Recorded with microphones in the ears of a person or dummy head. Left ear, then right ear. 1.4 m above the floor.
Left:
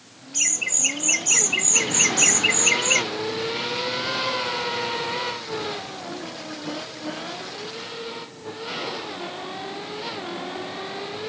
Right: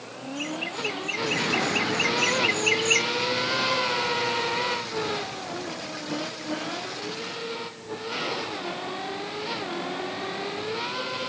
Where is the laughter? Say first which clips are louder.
Left 7 dB; 60° left (ahead or behind); by 3.0 s 15° left (ahead or behind).